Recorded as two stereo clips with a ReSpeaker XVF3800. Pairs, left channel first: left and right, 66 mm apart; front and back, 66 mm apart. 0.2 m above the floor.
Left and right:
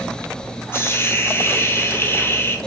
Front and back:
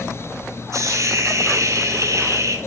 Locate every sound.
0.7 s a hiss: 145° left, 1.1 m